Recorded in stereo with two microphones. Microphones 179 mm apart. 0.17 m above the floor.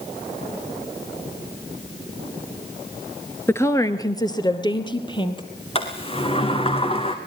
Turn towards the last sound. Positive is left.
turn(degrees=30)  # may be behind; listen again after turning